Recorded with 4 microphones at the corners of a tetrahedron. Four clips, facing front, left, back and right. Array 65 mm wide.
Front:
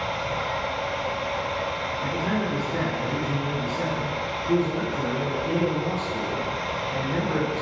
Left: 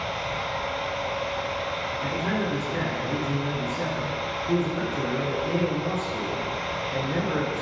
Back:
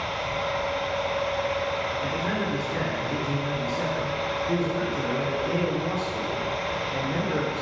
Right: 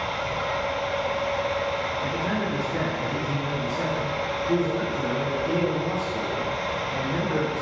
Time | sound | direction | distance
0.0 | running water | 45° right | 1.4 m
2.0 | a man speaking | 95° left | 1.2 m